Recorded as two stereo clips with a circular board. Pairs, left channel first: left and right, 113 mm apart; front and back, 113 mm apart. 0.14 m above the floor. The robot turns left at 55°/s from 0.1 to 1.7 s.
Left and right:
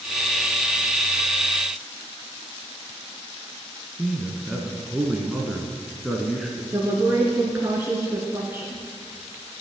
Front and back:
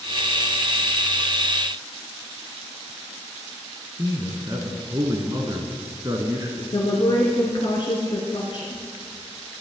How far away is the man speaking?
About 1.2 m.